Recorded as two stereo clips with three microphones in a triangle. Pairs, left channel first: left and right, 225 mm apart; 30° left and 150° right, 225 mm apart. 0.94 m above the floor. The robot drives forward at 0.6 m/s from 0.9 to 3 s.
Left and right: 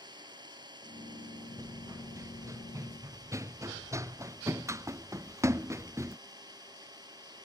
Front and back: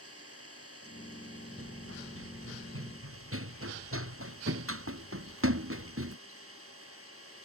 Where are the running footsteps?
165° right; by 6.2 s 170° right.